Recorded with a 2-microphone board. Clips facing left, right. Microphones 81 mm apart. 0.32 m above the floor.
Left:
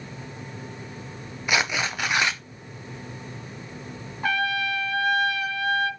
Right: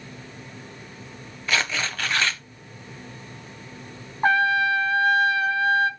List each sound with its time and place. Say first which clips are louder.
1.5 s tearing paper: left 1 dB; 15° left (ahead or behind), 0.5 m
4.2 s a trumpet: right 6 dB; 40° right (ahead or behind), 1.0 m